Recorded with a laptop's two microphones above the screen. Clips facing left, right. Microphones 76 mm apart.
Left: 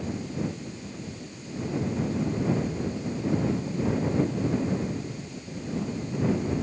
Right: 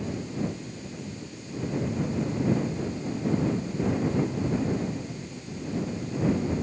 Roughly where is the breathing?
I don't hear breathing.